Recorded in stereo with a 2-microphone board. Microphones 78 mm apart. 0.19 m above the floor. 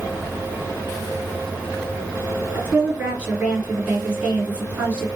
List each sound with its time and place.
2.5 s a woman speaking: 20° right (ahead or behind), 2 m